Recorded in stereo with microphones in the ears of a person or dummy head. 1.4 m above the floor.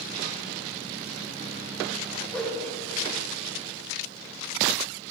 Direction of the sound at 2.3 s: 5° left (ahead or behind).